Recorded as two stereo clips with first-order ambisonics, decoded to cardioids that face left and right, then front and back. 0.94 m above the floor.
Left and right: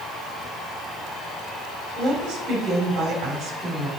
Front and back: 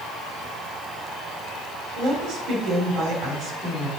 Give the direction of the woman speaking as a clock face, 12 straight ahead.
5 o'clock.